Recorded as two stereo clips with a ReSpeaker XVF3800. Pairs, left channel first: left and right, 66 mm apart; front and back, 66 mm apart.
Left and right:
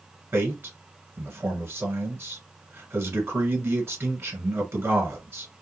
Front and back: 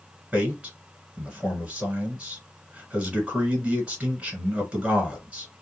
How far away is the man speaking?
About 2.0 m.